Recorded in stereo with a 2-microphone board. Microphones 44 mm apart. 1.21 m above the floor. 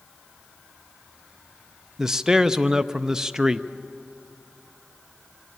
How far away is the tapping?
I don't hear tapping.